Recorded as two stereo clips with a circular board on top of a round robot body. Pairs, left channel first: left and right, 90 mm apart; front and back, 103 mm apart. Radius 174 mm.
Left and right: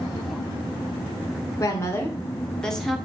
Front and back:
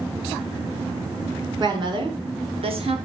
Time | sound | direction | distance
1.6 | a woman speaking | 140° left | 2.5 m